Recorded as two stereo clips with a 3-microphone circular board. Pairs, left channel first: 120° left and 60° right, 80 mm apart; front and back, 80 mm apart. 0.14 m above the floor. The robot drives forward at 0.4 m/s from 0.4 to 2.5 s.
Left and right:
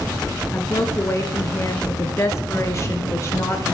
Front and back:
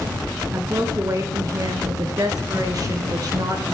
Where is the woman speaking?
150° left, 1.9 m; by 3.6 s 160° left, 2.5 m.